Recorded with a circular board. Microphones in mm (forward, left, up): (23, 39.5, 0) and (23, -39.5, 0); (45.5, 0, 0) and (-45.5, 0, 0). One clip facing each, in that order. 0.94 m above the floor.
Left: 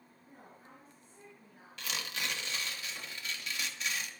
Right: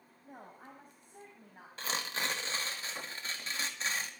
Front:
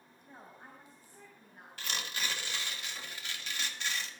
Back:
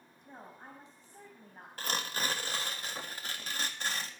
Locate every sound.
0.2 s a woman speaking: 110° right, 5 m; by 1.7 s 135° right, 5 m
1.8 s tearing paper: 140° right, 1.9 m